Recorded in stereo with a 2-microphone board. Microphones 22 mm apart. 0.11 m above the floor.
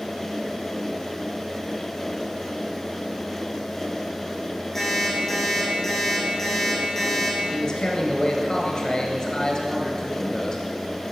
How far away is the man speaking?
About 1.6 m.